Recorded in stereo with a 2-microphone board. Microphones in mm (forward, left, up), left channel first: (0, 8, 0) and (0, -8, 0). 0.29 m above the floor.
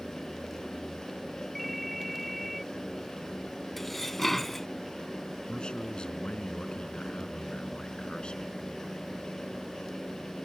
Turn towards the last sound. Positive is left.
turn(degrees=70)  # may be behind; listen again after turning